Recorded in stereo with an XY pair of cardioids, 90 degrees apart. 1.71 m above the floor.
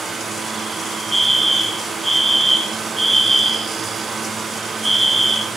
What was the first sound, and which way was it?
A fan, 40° right.